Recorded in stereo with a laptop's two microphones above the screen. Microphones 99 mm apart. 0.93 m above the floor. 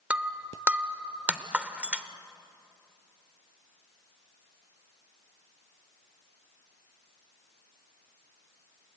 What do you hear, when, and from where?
0.1 s breaking glass: 15° right (ahead or behind), 0.7 m